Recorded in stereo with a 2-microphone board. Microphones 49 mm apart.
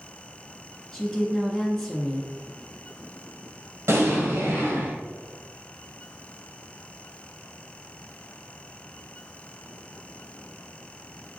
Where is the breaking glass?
No breaking glass in this recording.